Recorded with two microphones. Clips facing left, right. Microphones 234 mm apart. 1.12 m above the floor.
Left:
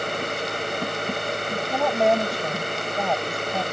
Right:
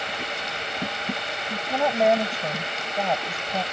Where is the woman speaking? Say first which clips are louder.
Right 1 dB; centre (ahead or behind).